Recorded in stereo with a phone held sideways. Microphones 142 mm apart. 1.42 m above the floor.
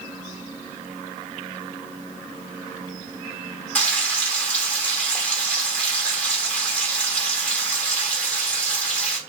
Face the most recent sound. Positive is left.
turn(degrees=10)  # may be behind; listen again after turning